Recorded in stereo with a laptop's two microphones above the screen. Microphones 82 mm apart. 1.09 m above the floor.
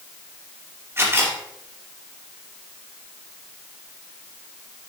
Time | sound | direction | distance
1.0 | a camera shutter | 30° right (ahead or behind) | 2.5 m